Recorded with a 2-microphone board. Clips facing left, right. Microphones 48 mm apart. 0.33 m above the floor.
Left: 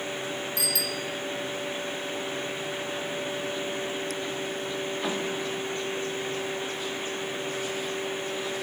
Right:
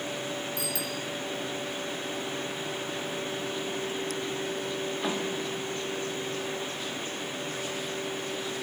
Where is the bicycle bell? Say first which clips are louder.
Left 2 dB; 65° left (ahead or behind), 3 m.